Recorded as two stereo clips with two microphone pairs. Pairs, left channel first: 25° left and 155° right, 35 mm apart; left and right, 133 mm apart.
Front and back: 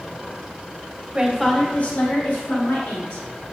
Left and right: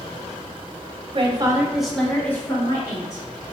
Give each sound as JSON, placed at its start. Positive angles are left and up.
{"t": 1.1, "sound": "a woman speaking", "azimuth_deg": -100, "distance_m": 0.6}